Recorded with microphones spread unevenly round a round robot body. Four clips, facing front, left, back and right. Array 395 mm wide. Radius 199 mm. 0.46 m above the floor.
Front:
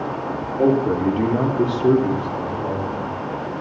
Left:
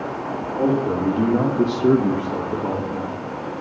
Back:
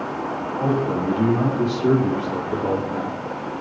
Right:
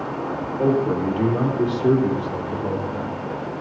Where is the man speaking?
15° left, 1.9 m; by 3.2 s 170° left, 1.8 m.